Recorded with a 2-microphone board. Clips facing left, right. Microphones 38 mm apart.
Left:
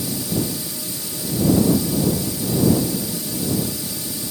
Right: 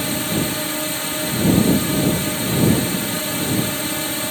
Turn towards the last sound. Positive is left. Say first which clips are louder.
# right 3 dB
turn(degrees=-50)  # may be behind; listen again after turning